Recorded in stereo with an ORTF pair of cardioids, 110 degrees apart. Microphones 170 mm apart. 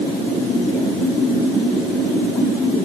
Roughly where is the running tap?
I don't hear a running tap.